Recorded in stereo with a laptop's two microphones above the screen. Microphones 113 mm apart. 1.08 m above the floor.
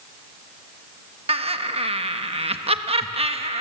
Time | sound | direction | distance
1.3 | laughter | 60° right (ahead or behind) | 1.2 m